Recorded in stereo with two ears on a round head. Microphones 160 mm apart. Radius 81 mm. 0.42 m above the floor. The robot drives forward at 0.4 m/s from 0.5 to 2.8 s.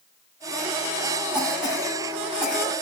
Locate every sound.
1.3 s a cough: 5° right (ahead or behind), 2.5 m